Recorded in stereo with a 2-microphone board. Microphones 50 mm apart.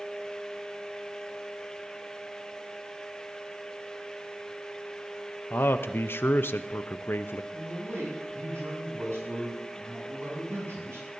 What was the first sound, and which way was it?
A man speaking, 55° left (ahead or behind).